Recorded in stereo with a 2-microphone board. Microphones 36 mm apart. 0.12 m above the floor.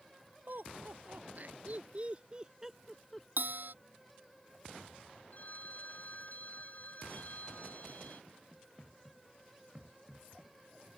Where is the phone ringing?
50° left (ahead or behind).